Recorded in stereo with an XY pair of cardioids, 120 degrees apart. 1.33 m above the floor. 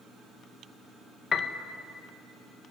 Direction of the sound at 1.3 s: 35° left.